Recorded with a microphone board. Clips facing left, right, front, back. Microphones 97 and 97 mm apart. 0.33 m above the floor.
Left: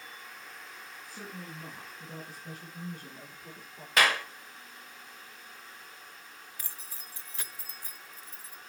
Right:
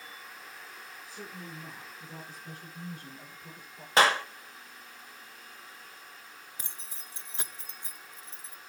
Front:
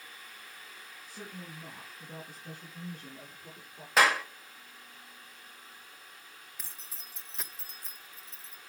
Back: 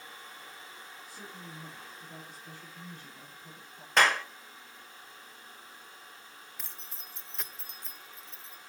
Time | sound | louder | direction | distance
1.1 | a woman speaking | even, front 4 dB | 55° left | 4.5 m
4.0 | a clap | right 3 dB, even | 80° right | 1.2 m
6.6 | keys jangling | even, back 2 dB | 85° right | 0.6 m